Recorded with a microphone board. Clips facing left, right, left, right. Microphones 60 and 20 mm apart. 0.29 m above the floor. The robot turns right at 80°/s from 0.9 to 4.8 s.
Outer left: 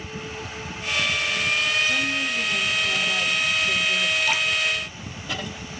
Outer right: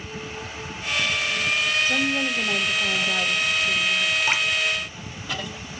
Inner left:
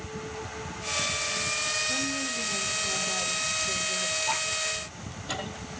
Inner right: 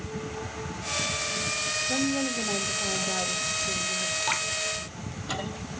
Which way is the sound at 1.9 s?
135° right.